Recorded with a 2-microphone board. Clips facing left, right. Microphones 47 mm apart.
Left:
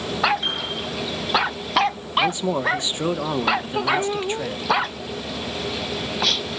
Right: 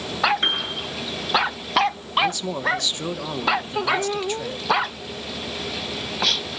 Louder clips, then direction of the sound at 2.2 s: Left 2 dB; 25° left (ahead or behind).